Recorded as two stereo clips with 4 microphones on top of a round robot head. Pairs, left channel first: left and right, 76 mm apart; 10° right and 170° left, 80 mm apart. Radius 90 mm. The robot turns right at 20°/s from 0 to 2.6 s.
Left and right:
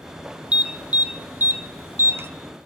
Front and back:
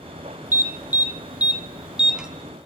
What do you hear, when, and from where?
0.5 s an alarm: 150° right, 0.6 m; by 2.3 s 115° right, 0.6 m